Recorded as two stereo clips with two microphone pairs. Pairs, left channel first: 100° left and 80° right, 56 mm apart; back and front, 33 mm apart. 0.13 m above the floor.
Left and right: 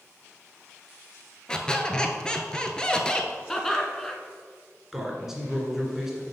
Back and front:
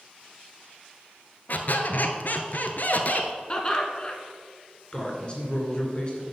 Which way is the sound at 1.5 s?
175° left.